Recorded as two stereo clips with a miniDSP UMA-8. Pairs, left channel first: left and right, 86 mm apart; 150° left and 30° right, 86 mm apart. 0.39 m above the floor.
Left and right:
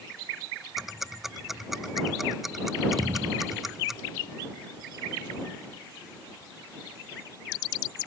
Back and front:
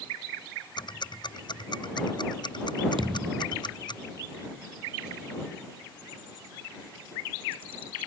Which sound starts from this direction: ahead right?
A thud, at 3.0 s.